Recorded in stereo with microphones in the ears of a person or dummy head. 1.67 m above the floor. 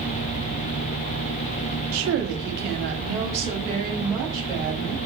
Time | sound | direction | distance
1.9 | a woman speaking | 80° right | 0.7 m